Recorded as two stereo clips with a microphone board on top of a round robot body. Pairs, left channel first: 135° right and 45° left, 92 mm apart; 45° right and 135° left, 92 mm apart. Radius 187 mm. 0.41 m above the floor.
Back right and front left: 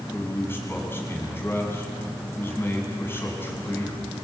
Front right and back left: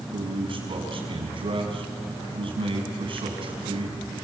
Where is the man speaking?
160° left, 6 m.